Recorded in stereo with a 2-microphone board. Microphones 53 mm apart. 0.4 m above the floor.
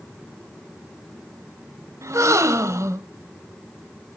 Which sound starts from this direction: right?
A gasp, at 2.0 s.